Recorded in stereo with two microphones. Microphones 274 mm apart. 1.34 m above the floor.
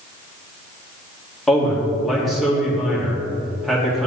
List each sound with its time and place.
1.5 s a man speaking: centre (ahead or behind), 2 m